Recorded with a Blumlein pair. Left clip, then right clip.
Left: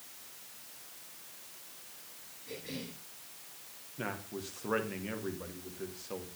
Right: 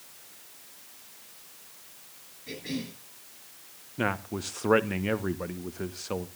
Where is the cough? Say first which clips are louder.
Right 6 dB; 65° right, 10 m.